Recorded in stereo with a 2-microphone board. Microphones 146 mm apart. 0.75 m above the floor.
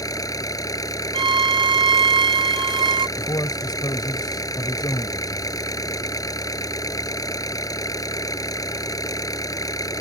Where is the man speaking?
30° left (ahead or behind).